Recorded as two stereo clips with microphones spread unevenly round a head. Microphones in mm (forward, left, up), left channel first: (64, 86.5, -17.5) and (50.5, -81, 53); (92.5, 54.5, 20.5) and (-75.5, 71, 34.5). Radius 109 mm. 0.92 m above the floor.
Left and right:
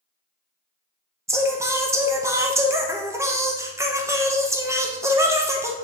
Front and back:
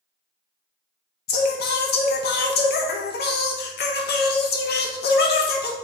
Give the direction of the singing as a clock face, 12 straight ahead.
12 o'clock.